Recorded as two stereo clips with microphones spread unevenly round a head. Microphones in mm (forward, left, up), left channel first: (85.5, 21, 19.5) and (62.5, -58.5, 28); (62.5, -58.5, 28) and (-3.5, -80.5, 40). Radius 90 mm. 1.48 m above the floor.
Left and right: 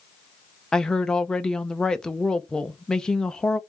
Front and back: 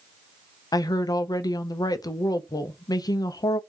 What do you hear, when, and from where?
0.7 s a woman speaking: 10° right, 0.6 m